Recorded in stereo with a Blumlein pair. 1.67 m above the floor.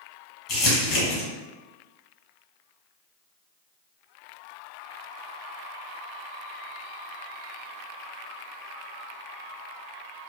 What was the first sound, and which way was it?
Crumpling, 30° left.